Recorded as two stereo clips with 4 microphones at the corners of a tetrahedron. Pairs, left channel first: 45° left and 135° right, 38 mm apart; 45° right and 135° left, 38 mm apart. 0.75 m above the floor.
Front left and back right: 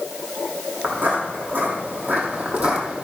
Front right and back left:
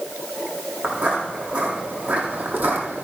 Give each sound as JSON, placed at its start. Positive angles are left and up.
{"t": 0.8, "sound": "footsteps", "azimuth_deg": -160, "distance_m": 3.5}